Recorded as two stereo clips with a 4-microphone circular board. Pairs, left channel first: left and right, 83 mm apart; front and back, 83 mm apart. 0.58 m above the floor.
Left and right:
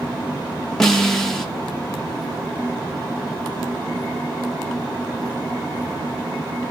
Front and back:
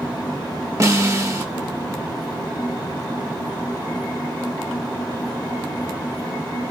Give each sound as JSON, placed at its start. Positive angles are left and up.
{"t": 0.8, "sound": "a snare drum", "azimuth_deg": 175, "distance_m": 0.9}